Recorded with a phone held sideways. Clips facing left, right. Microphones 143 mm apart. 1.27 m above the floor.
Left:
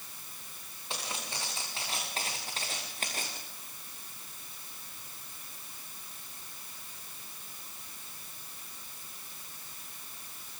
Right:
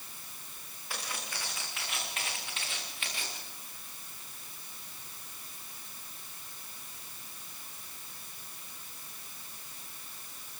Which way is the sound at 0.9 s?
25° left (ahead or behind).